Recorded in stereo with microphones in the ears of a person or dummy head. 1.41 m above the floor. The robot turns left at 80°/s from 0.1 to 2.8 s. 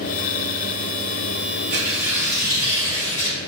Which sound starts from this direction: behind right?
Tearing paper, at 1.7 s.